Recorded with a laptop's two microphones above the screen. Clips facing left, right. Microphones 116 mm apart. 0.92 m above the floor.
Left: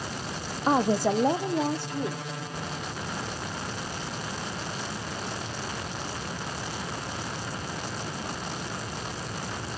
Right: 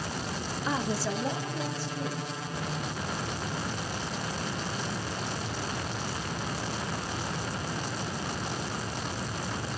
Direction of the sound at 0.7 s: 40° left (ahead or behind).